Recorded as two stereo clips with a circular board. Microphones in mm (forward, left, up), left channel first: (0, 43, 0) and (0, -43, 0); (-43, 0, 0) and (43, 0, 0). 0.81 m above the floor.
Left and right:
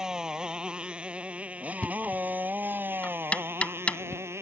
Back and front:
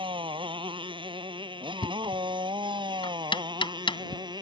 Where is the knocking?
165° left.